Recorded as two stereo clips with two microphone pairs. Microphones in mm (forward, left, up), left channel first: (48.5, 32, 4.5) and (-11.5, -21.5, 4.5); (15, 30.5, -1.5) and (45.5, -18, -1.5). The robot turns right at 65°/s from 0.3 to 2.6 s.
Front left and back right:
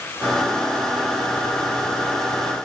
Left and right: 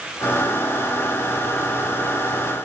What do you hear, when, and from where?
Only background noise.